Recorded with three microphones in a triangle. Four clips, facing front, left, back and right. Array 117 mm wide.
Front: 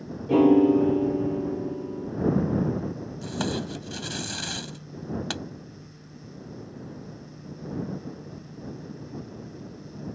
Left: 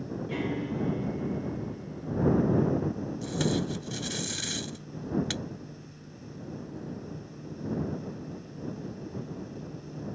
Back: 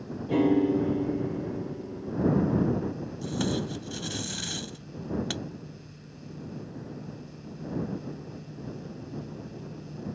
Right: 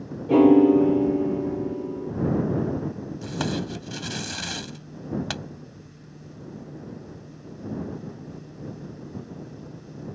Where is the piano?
65° right.